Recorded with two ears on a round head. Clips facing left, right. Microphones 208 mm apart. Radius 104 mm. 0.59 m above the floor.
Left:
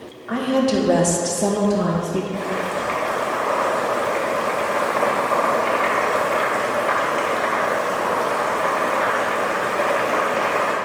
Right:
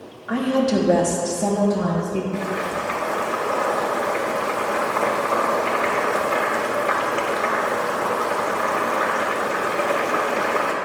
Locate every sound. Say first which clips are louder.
0.3 s a woman speaking: left 1 dB; 10° right (ahead or behind), 1.0 m; by 2.2 s 30° left (ahead or behind), 1.1 m
2.3 s boiling: left 1 dB; 15° right (ahead or behind), 0.9 m